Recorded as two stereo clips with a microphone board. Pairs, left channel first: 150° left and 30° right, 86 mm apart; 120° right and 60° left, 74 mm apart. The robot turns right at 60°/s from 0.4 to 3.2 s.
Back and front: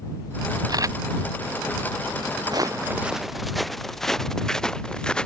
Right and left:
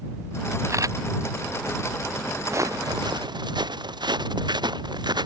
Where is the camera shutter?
10° left; by 1.0 s 25° left.